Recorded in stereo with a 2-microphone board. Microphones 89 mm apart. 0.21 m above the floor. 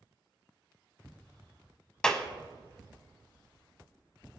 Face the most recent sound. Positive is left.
turn(degrees=10)  # may be behind; listen again after turning